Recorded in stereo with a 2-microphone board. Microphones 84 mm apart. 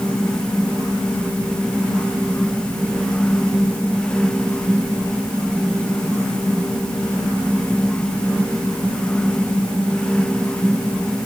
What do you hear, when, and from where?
Only background noise.